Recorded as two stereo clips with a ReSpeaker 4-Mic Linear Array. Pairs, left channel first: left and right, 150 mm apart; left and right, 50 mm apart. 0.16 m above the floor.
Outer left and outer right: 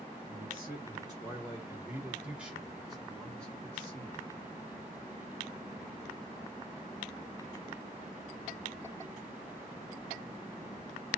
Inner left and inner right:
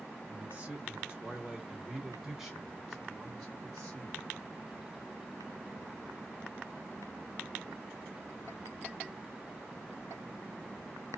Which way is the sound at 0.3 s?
35° right (ahead or behind).